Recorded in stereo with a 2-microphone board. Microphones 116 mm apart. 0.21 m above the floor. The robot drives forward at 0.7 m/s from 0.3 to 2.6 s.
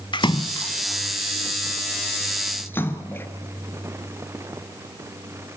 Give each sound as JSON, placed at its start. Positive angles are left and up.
{"t": 0.1, "sound": "a splash", "side_deg": 45, "distance_m": 0.8}